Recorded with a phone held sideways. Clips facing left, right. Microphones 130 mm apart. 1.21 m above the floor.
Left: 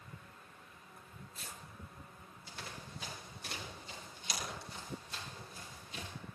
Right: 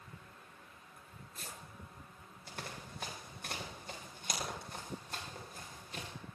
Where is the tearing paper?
50° right (ahead or behind), 6.5 m.